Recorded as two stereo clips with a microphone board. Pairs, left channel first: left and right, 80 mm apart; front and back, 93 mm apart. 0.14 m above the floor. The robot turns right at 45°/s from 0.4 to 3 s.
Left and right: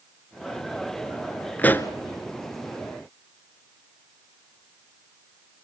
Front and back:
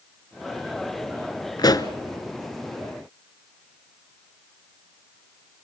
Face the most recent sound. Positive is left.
turn(degrees=85)